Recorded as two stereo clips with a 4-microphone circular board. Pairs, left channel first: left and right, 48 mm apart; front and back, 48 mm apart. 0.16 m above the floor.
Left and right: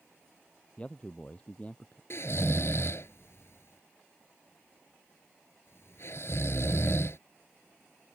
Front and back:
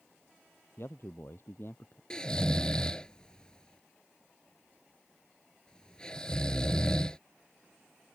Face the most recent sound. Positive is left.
turn(degrees=70)